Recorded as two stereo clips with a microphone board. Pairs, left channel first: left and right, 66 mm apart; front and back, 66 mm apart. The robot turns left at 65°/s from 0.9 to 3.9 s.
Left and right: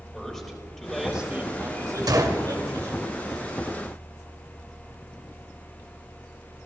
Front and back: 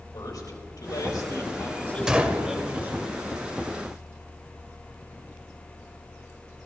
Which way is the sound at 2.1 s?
100° right.